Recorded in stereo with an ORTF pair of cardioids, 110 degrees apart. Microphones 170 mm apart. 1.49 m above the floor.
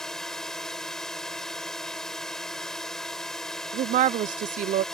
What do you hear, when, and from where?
0.0 s a drone: 5° left
3.7 s a woman speaking: 55° right